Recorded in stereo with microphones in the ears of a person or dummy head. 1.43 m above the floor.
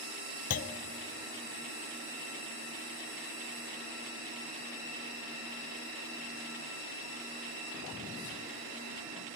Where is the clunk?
45° left (ahead or behind), 0.6 m.